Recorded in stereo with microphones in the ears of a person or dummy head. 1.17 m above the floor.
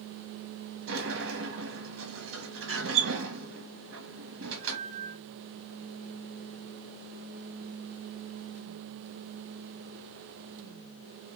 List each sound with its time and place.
0.9 s a sliding door: 65° right (ahead or behind), 1.1 m